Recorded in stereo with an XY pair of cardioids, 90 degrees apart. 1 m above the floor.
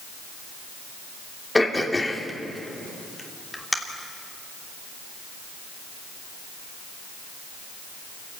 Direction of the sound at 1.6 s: 15° left.